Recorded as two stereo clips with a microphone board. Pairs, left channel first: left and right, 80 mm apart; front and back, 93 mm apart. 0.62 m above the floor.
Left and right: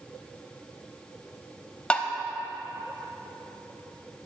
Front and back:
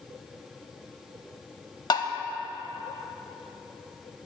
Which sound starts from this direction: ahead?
Tapping, at 1.9 s.